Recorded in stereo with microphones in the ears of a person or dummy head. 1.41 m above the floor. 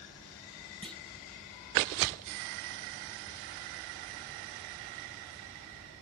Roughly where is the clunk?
Centre.